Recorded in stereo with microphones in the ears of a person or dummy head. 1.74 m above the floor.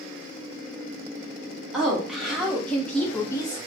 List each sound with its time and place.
1.7 s a woman speaking: 5° right (ahead or behind), 1.4 m; by 3.6 s 25° left (ahead or behind), 0.7 m